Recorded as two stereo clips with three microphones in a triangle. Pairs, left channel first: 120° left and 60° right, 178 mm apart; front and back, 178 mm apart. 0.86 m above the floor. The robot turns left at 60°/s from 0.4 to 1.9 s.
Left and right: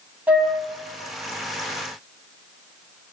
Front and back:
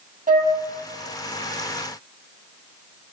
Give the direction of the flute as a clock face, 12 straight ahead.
5 o'clock.